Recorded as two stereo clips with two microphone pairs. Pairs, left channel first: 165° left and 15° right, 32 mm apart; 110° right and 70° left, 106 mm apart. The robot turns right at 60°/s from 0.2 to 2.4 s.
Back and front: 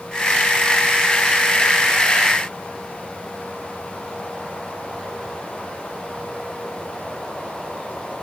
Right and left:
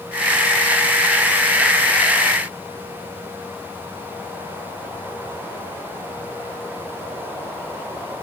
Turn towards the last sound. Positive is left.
No sound to turn to.